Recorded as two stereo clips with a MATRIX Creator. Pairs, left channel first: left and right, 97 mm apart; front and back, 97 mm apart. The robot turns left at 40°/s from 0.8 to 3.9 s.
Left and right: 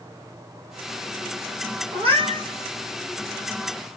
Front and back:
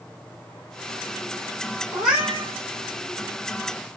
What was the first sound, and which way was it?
A cat meowing, 90° right.